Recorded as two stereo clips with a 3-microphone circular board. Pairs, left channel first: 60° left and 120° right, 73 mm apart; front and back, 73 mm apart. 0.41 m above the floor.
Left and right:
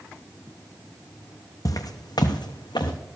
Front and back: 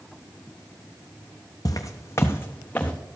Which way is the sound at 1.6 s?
30° left.